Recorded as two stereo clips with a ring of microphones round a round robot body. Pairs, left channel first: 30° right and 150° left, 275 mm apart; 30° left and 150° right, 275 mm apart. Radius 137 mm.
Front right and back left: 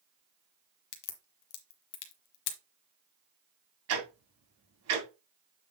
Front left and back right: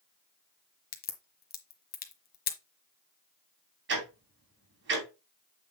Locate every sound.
0.9 s a crack: 25° right, 1.3 m
3.9 s ticking: 165° left, 2.5 m